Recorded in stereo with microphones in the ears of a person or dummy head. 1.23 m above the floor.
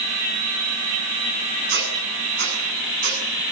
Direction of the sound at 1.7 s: 50° right (ahead or behind).